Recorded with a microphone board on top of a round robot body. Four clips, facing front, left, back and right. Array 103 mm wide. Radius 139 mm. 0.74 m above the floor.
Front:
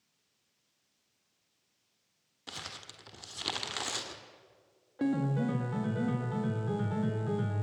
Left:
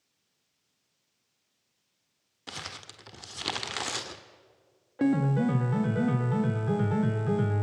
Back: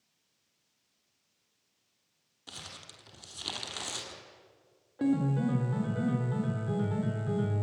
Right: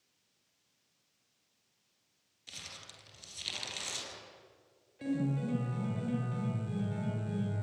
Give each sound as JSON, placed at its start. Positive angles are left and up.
{"t": 2.5, "sound": "crumpling", "azimuth_deg": 75, "distance_m": 1.5}
{"t": 5.0, "sound": "a piano", "azimuth_deg": 85, "distance_m": 1.8}